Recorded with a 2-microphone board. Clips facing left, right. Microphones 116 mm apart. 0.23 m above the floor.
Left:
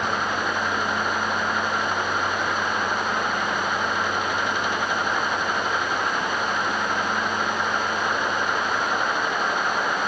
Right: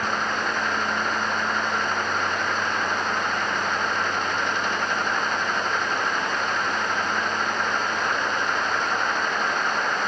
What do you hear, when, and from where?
Only background noise.